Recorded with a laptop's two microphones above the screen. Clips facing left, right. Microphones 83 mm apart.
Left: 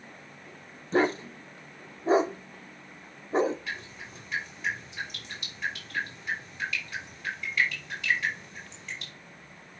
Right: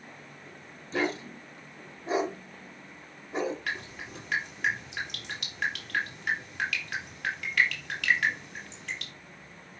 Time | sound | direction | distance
0.9 | a dog barking | 35° left (ahead or behind) | 0.8 m
3.7 | dripping | 70° right (ahead or behind) | 4 m